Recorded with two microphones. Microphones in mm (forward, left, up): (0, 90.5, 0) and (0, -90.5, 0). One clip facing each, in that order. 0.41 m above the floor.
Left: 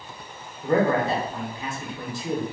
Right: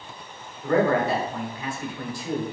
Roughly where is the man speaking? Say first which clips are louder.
Even; left.